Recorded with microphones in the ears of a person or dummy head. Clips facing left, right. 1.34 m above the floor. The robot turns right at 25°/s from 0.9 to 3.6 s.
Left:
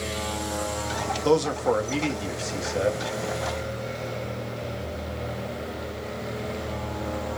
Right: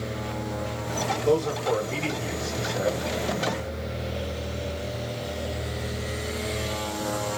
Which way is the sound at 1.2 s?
110° left.